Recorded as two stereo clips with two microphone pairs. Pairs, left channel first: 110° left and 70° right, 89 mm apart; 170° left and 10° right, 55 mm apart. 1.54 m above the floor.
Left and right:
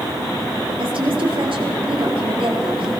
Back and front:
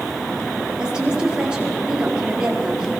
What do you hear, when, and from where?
0.8 s a woman speaking: 85° right, 4.5 m